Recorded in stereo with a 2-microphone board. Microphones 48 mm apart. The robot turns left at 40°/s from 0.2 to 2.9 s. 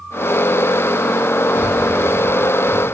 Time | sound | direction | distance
1.6 | breathing | 45° right (ahead or behind) | 0.9 m